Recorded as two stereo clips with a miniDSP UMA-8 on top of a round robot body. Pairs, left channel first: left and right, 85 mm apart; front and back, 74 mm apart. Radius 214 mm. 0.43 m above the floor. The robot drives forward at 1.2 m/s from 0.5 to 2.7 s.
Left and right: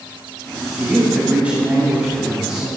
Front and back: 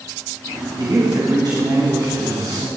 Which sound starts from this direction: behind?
A man speaking, at 0.8 s.